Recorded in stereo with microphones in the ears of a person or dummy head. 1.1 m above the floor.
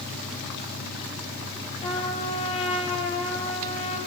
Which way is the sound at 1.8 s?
35° left (ahead or behind).